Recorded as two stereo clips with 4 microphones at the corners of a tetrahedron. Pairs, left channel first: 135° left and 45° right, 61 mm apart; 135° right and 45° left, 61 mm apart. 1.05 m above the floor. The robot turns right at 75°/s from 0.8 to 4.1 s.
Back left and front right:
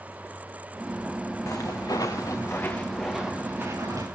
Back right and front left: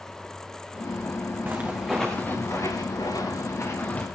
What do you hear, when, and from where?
1.5 s footsteps: 100° left, 4 m; by 4.0 s 65° right, 7.5 m